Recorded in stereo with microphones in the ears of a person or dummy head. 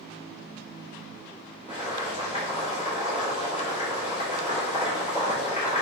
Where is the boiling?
40° left (ahead or behind), 2 m.